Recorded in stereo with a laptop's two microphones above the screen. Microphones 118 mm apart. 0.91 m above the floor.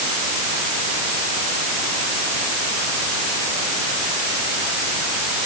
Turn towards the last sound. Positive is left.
No sound to turn to.